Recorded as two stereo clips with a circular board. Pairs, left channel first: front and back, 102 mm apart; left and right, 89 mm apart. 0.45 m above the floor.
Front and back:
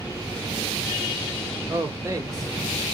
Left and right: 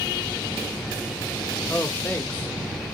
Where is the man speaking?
145° left, 1.0 m.